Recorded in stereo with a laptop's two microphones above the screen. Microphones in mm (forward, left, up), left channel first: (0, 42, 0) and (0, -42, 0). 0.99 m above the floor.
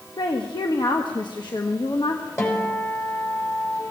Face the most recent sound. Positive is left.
turn(degrees=30)  # may be behind; listen again after turning